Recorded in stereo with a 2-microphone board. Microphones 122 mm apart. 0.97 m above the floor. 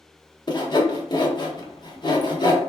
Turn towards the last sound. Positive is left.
turn(degrees=40)  # may be behind; listen again after turning